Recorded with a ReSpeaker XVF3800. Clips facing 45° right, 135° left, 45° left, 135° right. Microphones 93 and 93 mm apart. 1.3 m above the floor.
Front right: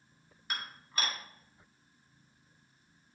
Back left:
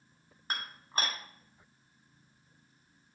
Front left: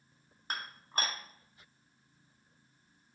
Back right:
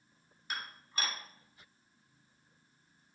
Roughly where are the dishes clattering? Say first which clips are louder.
Back left 2 dB, front left 3 dB; left.